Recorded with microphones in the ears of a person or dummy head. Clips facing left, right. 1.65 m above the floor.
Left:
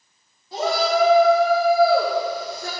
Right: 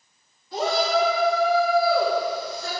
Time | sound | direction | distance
0.5 | a shout | 30° left (ahead or behind) | 2.5 m